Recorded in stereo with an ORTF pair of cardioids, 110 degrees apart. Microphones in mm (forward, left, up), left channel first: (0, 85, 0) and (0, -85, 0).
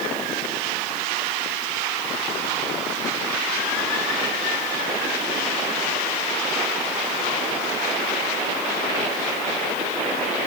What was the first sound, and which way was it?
Only background noise.